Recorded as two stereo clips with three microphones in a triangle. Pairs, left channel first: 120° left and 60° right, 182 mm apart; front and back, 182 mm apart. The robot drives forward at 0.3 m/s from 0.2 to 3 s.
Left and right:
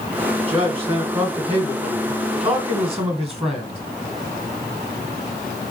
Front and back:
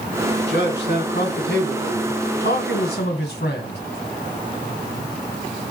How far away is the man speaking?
About 1.7 m.